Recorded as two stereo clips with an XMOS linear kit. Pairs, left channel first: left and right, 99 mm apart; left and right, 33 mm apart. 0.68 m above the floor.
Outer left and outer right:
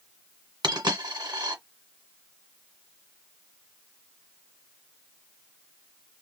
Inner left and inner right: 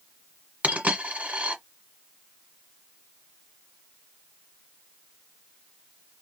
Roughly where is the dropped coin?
Right.